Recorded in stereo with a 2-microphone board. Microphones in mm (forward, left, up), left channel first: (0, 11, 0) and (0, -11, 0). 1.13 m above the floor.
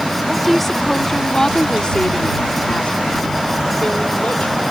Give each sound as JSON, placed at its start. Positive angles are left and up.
{"t": 0.3, "sound": "a woman speaking", "side_deg": 5}